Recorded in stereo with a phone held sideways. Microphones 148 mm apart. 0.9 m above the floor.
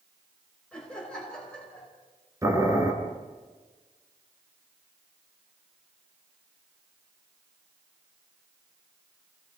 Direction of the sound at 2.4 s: 20° right (ahead or behind).